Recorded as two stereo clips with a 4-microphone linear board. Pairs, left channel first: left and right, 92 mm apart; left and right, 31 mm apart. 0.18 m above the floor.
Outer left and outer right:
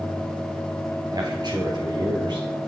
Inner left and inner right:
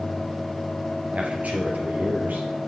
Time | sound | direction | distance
1.1 | a man speaking | 50° right (ahead or behind) | 2.5 m